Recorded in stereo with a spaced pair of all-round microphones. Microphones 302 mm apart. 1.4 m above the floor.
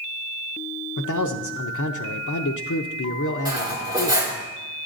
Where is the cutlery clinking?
15° right (ahead or behind), 2.0 m.